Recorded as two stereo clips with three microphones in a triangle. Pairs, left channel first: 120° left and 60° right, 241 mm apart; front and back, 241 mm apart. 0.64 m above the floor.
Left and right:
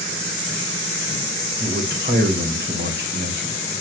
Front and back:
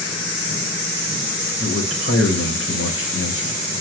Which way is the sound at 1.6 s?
20° right.